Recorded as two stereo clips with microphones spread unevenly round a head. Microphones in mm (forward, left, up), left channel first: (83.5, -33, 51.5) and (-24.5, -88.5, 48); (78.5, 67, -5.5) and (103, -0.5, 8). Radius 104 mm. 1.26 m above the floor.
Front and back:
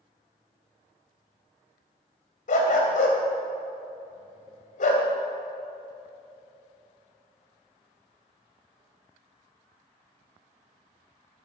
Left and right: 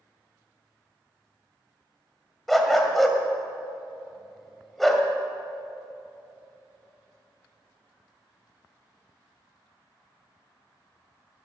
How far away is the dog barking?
About 2 m.